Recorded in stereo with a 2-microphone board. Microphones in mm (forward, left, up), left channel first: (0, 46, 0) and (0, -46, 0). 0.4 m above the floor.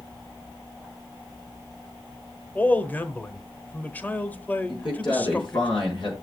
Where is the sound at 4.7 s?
60° left (ahead or behind), 4.5 m.